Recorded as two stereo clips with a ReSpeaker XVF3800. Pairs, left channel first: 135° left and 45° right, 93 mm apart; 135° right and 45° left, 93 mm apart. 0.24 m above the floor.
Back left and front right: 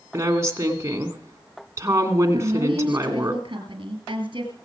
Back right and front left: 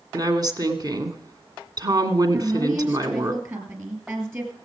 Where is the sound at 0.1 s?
10° left, 2 m.